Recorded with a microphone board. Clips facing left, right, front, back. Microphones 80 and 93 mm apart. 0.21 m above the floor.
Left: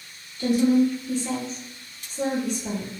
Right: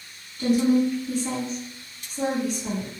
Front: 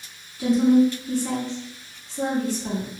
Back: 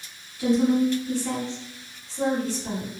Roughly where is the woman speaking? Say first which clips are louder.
Left 1 dB, front 3 dB; ahead right.